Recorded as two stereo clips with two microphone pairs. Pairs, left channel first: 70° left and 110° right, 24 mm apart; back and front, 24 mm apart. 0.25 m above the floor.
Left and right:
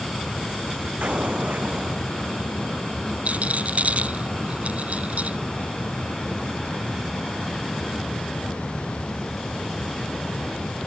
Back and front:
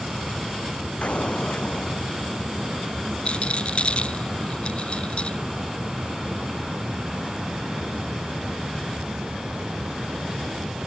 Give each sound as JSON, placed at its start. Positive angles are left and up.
{"t": 1.0, "sound": "an explosion", "azimuth_deg": -140}
{"t": 3.2, "sound": "a rattle", "azimuth_deg": -135}